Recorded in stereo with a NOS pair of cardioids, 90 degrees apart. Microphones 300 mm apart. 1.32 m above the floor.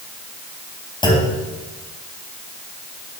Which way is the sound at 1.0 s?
15° left.